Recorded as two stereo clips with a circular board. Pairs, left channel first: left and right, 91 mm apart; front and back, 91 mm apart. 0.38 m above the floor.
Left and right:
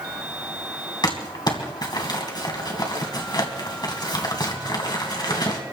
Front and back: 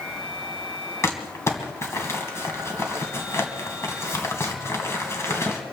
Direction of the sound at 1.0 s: 55° left.